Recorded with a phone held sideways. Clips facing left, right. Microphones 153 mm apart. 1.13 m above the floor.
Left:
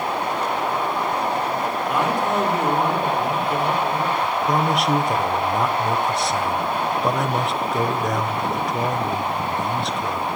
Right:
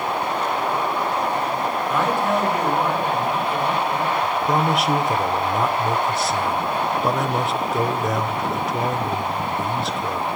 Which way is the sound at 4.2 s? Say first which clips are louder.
Right 1 dB; centre (ahead or behind).